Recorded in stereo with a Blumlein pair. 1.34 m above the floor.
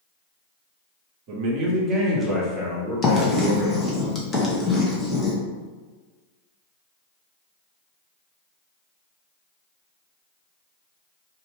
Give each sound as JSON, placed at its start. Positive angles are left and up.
{"t": 1.3, "sound": "a man speaking", "azimuth_deg": -45, "distance_m": 0.8}
{"t": 3.0, "sound": "writing", "azimuth_deg": 20, "distance_m": 0.8}